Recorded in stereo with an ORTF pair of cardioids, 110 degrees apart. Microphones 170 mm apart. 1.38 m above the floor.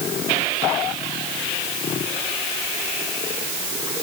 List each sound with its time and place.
Only background noise.